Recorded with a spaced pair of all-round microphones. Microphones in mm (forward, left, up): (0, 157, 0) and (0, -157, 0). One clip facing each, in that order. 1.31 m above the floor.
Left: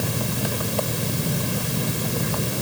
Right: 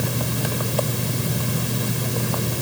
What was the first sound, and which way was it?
Only background noise.